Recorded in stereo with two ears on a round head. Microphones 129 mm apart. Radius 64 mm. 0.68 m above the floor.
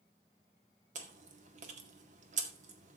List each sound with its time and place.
0.9 s chewing: 55° right (ahead or behind), 1.8 m